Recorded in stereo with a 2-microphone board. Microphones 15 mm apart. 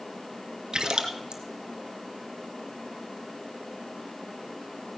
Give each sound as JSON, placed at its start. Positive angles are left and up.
{"t": 0.7, "sound": "a splash", "side_deg": -55, "distance_m": 1.4}